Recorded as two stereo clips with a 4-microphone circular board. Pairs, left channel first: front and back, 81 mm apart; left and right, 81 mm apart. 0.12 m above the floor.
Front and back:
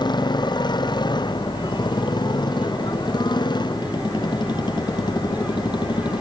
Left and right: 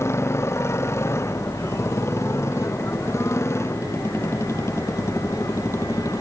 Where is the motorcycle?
30° left.